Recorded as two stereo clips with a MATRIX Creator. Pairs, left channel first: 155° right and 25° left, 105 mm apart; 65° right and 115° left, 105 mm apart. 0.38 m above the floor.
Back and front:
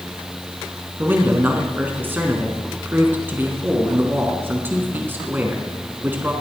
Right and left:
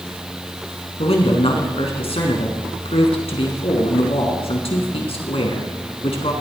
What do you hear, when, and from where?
1.0 s a man speaking: 50° right, 4 m